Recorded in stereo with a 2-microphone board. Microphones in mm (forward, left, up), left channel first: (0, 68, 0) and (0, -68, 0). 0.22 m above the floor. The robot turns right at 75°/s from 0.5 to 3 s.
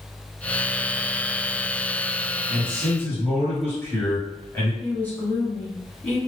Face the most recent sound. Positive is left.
turn(degrees=10)  # may be behind; listen again after turning